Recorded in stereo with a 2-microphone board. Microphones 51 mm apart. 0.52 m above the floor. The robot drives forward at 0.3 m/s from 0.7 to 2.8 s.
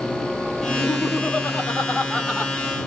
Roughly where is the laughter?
Centre.